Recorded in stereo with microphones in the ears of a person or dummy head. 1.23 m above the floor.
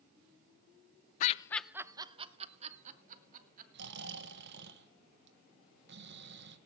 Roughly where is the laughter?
Left.